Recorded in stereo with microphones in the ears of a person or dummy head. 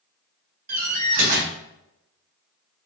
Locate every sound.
0.7 s a door slam: 50° right (ahead or behind), 1.0 m